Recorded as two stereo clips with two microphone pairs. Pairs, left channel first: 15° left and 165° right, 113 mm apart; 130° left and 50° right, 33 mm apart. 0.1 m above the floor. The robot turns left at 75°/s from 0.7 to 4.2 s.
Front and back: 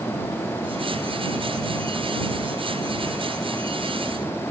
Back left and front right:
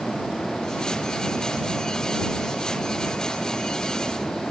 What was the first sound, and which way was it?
Only background noise.